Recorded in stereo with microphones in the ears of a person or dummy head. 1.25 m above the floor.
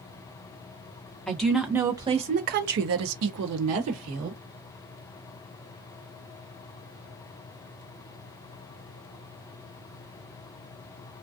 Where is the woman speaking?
Centre (ahead or behind), 1.0 m; by 4.4 s 70° right (ahead or behind), 1.3 m.